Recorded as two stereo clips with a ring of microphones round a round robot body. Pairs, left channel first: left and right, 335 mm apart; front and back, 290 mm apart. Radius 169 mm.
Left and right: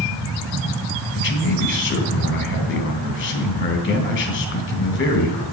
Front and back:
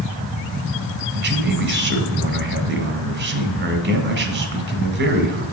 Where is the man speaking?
140° left, 1.7 m.